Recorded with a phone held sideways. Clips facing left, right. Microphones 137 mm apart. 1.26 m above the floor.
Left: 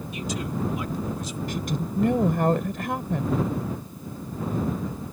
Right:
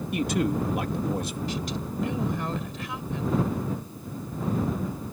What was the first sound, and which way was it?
A man speaking, 60° right (ahead or behind).